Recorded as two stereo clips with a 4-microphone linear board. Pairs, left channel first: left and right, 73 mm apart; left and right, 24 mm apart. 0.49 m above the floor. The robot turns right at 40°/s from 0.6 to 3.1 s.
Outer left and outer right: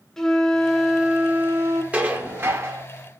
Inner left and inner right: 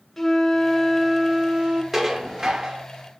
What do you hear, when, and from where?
0.2 s a flute: 175° left, 0.9 m; by 1.8 s 140° right, 0.9 m
1.9 s dishes clattering: 155° right, 0.8 m; by 2.9 s 115° right, 0.8 m